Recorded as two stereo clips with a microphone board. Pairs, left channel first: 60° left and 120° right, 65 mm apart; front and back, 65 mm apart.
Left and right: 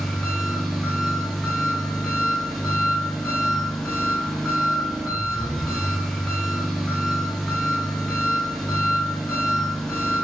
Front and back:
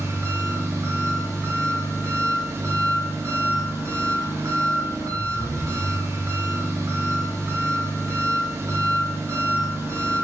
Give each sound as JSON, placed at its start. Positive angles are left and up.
{"t": 0.0, "sound": "an engine running", "azimuth_deg": 145, "distance_m": 2.0}